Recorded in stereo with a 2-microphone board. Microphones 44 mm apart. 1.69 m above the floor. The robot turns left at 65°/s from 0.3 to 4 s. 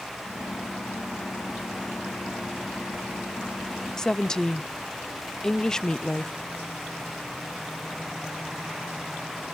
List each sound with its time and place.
4.0 s a woman speaking: 15° left (ahead or behind), 0.5 m